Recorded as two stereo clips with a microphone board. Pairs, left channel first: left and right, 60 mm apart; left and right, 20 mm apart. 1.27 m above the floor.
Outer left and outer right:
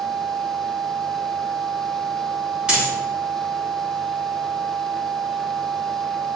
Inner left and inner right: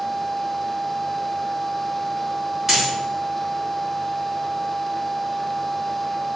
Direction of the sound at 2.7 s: 10° right (ahead or behind).